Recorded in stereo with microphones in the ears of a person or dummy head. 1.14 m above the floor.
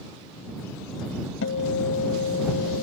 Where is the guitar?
65° left (ahead or behind).